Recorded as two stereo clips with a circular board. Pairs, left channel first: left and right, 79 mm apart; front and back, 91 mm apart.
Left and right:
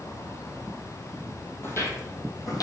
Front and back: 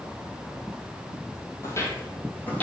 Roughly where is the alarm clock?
I don't hear an alarm clock.